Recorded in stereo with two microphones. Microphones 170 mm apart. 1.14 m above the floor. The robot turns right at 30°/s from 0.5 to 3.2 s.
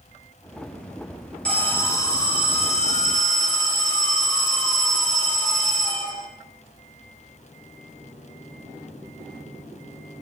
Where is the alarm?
5° left, 2 m; by 6.3 s 60° left, 2 m.